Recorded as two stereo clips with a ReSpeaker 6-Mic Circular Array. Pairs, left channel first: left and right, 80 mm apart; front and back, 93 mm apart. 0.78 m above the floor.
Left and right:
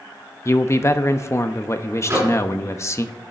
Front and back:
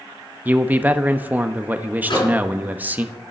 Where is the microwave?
30° right, 6.5 m.